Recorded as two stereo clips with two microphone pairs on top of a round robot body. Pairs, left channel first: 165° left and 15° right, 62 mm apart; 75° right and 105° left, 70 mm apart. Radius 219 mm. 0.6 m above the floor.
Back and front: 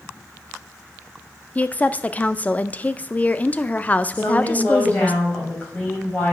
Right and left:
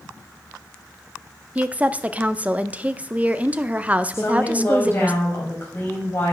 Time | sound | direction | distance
1.6 | a woman speaking | 160° left | 0.8 m
4.1 | a woman speaking | 130° right | 5 m